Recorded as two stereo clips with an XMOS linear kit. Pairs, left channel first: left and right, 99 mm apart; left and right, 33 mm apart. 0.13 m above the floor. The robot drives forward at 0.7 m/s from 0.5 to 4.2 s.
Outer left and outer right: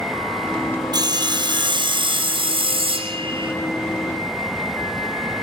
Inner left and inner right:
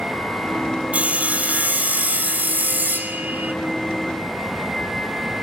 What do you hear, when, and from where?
0.9 s sawing: 45° right (ahead or behind), 2 m; by 3.5 s 60° right (ahead or behind), 1.8 m